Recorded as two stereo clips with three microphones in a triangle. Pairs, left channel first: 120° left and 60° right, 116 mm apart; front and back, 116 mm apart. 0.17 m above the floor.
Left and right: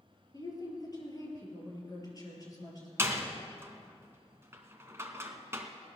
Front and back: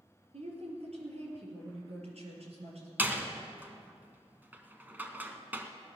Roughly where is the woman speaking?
Behind.